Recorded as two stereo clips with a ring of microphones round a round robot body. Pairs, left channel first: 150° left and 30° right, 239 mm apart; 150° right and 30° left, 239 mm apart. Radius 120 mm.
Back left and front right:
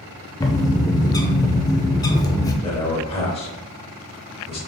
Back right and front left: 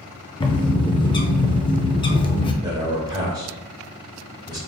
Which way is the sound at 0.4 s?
170° right.